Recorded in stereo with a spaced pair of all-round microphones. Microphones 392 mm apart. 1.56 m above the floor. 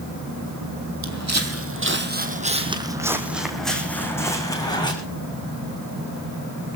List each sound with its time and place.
1.0 s footsteps: 45° right (ahead or behind), 2 m; by 4.9 s 10° left (ahead or behind), 4.5 m